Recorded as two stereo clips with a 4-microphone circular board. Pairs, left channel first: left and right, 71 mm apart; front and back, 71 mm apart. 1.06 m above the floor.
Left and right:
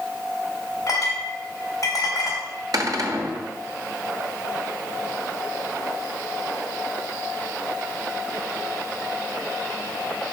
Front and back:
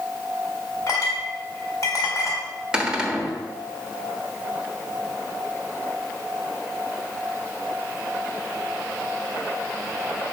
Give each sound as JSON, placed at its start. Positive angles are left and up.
{"t": 0.9, "sound": "a clink", "azimuth_deg": 45, "distance_m": 3.0}
{"t": 2.7, "sound": "a cupboard door", "azimuth_deg": -105, "distance_m": 1.2}